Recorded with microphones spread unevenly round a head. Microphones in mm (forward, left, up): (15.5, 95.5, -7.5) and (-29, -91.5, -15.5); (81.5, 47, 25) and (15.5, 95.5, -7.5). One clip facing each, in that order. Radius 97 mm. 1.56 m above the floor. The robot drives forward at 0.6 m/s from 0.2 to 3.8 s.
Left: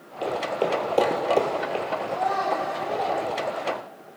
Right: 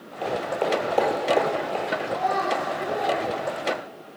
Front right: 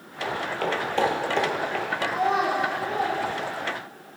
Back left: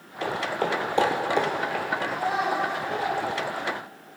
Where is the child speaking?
50° right, 4 m; by 3.2 s 55° right, 3.5 m.